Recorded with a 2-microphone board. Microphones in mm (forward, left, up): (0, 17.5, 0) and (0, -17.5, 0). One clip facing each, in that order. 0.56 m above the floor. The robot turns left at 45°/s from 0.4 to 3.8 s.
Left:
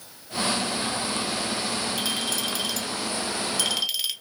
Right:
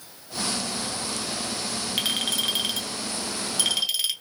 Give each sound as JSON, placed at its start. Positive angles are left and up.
{"t": 2.0, "sound": "a clink", "azimuth_deg": -95, "distance_m": 0.6}